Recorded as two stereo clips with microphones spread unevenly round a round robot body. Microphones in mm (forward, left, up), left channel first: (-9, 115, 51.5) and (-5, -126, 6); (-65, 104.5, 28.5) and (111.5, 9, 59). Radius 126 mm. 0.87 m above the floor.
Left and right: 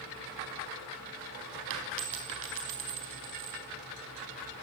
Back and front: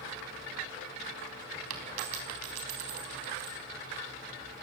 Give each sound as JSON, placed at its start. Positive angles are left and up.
{"t": 1.7, "sound": "a dropped coin", "azimuth_deg": -50, "distance_m": 4.0}